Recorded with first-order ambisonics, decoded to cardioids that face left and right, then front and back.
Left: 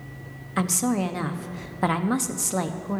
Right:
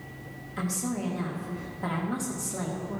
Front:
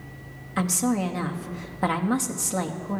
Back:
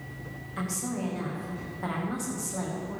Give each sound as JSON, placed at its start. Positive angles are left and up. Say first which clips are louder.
{"t": 0.6, "sound": "a woman speaking", "louder": "left 8 dB, front 9 dB", "azimuth_deg": 55, "distance_m": 1.1}